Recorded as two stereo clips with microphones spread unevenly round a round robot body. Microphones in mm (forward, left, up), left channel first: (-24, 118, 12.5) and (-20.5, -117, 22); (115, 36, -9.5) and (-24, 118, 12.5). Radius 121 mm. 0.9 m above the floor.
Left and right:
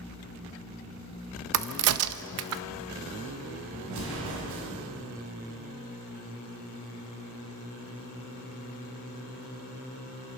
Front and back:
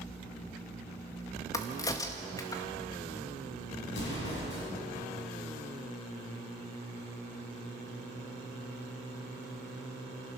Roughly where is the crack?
Right.